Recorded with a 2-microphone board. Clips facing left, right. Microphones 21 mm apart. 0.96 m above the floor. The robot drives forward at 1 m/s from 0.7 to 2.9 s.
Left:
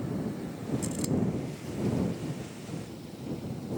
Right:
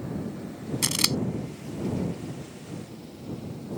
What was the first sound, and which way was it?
Scissors, 85° right.